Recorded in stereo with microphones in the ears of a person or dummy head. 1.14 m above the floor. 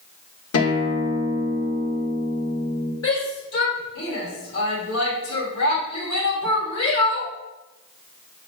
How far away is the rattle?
I don't hear a rattle.